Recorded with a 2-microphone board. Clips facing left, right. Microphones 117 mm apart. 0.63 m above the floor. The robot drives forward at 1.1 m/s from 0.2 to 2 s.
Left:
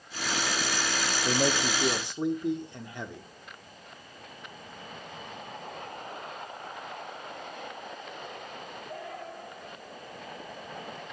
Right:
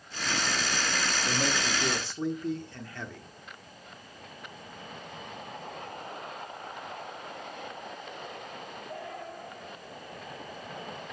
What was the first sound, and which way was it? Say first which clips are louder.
A man speaking: left 6 dB; 30° left (ahead or behind).